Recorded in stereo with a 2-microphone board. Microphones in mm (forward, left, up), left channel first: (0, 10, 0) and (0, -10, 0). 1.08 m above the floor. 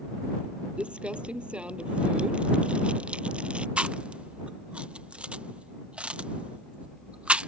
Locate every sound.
0.8 s crumpling: 65° right (ahead or behind)
3.8 s chewing: 65° right (ahead or behind)